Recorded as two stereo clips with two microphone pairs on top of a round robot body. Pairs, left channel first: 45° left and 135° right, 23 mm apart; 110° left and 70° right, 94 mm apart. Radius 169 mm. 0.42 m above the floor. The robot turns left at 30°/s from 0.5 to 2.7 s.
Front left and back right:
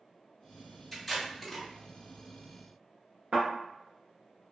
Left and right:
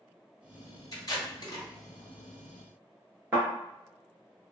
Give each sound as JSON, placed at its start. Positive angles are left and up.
{"t": 0.9, "sound": "tape being pulled", "azimuth_deg": 120, "distance_m": 1.8}
{"t": 3.3, "sound": "a thud", "azimuth_deg": -140, "distance_m": 0.6}